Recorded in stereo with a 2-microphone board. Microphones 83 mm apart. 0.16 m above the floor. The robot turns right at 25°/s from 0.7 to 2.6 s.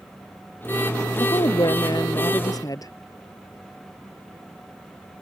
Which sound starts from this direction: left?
A woman speaking, at 1.2 s.